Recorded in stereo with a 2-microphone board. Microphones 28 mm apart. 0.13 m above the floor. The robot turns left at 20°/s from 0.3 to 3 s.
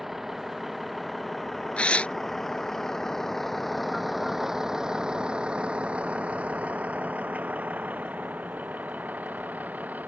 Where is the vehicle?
10° right (ahead or behind); by 10.1 s 85° right.